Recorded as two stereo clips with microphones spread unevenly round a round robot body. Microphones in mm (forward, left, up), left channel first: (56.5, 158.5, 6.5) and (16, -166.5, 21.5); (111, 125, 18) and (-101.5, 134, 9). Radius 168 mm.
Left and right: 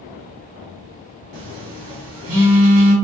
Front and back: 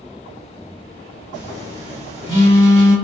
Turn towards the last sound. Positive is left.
turn(degrees=-50)